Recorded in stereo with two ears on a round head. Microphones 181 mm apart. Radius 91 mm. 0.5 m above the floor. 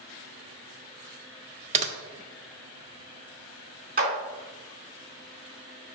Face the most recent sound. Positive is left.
turn(degrees=-45)  # may be behind; listen again after turning